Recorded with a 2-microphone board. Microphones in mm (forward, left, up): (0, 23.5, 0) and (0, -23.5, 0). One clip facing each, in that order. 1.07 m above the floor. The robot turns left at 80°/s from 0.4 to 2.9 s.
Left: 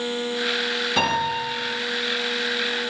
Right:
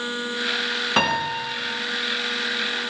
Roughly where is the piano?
Ahead right.